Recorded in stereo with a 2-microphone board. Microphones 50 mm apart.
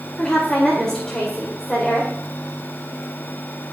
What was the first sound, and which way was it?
A woman speaking, 15° left (ahead or behind).